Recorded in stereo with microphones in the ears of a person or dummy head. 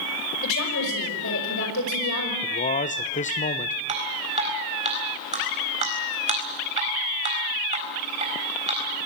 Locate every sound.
0.4 s a woman speaking: 65° left (ahead or behind), 6 m
2.4 s a man speaking: 40° left (ahead or behind), 1.1 m
3.9 s dripping: 30° right (ahead or behind), 4 m